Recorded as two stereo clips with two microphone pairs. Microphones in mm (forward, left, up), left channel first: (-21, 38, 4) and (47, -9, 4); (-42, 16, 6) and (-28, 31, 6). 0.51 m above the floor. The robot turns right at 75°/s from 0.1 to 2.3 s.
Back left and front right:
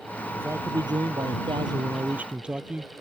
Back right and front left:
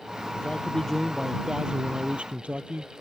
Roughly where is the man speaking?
Right.